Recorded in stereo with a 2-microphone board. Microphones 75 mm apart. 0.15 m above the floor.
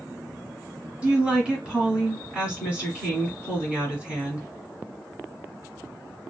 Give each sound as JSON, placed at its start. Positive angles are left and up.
{"t": 1.0, "sound": "a woman speaking", "side_deg": -15, "distance_m": 1.4}